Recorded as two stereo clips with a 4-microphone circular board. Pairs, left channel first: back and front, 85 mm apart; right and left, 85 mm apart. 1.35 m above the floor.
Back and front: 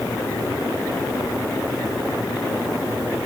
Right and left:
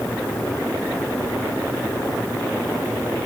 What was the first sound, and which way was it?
Only background noise.